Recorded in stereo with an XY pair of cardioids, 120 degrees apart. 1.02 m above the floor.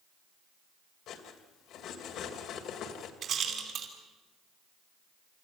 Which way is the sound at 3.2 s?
55° right.